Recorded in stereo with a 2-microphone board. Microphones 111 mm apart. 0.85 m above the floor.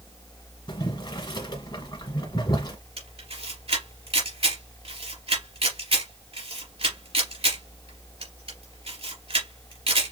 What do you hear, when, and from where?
0.7 s boiling: 45° left (ahead or behind), 1.8 m
3.0 s a camera shutter: 60° right (ahead or behind), 3 m